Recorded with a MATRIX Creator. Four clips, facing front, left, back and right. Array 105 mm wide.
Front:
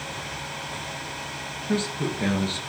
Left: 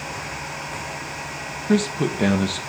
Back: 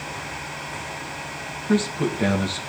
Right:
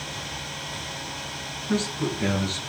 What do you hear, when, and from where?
1.7 s a man speaking: 110° left, 4 m